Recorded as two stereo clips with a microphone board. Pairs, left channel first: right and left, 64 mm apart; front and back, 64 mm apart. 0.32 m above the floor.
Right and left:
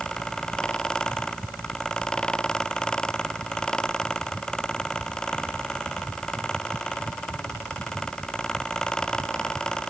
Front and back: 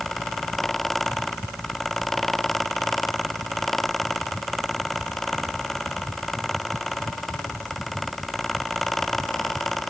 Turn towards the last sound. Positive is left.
No sound to turn to.